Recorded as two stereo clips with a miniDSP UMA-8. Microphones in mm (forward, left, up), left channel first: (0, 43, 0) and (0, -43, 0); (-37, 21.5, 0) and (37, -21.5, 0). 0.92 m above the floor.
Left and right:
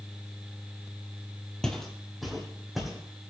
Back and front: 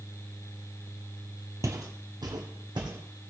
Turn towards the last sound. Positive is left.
turn(degrees=-5)